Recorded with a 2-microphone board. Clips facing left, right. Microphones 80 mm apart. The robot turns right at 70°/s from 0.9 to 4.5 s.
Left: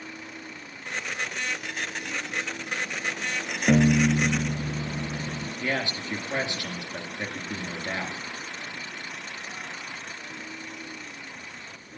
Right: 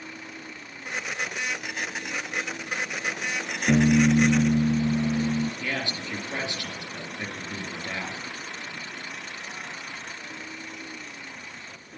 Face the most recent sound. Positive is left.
turn(degrees=30)  # may be behind; listen again after turning